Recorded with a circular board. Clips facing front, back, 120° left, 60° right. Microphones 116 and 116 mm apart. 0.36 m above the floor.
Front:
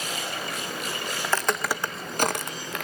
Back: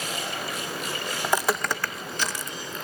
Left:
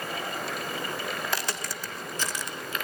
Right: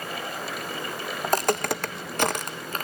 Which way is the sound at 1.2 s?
110° right.